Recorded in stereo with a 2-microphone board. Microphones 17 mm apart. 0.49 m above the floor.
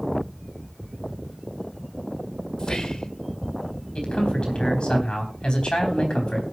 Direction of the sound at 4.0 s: 70° left (ahead or behind).